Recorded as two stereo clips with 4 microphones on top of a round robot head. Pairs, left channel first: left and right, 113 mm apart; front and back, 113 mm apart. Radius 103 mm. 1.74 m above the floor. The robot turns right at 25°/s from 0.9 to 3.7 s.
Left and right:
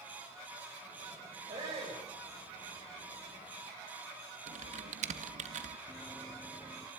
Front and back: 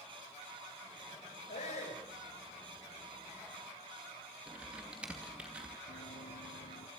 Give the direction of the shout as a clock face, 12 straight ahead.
1 o'clock.